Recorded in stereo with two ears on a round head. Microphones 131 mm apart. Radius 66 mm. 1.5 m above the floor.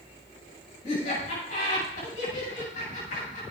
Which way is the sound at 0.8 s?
50° left (ahead or behind).